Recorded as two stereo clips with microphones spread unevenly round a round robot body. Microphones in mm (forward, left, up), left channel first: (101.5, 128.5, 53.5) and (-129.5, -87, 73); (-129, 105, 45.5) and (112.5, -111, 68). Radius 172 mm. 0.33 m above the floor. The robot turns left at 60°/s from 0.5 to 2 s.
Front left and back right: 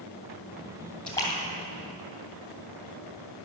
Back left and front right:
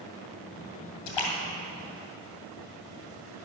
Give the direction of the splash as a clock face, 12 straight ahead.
8 o'clock.